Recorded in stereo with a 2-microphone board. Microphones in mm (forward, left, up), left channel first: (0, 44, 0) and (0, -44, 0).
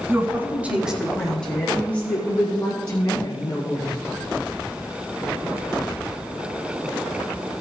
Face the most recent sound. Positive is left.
turn(degrees=35)  # may be behind; listen again after turning